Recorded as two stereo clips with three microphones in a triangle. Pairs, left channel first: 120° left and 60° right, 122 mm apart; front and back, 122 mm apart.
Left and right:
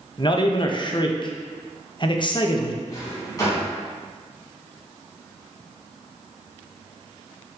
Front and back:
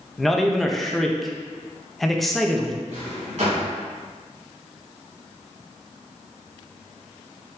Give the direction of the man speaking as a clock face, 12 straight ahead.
9 o'clock.